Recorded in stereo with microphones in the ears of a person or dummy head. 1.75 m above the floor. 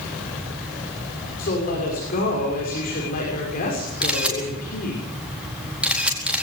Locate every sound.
1.4 s a woman speaking: 50° left (ahead or behind), 6.5 m
4.0 s a camera shutter: 5° right (ahead or behind), 4.5 m